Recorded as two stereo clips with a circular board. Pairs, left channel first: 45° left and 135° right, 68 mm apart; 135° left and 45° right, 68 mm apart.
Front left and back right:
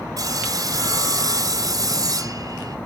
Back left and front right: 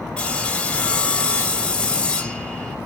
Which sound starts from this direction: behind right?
Sawing, at 0.2 s.